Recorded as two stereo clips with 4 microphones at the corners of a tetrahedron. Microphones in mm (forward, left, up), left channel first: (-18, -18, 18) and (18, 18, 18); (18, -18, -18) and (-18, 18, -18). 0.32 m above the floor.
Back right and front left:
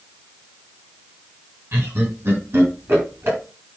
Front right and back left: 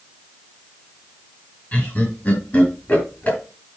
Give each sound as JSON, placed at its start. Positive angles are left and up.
{"t": 1.7, "sound": "laughter", "azimuth_deg": 10, "distance_m": 4.0}